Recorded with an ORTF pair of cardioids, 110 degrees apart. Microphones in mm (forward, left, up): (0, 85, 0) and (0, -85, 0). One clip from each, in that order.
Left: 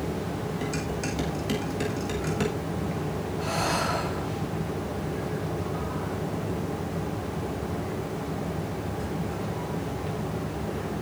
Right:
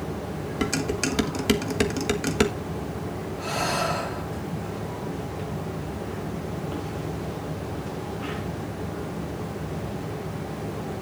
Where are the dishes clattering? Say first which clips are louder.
Right 8 dB; 65° right, 1.4 m.